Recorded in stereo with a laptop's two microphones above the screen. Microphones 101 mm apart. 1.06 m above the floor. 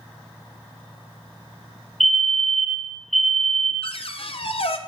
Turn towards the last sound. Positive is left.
turn(degrees=65)  # may be behind; listen again after turning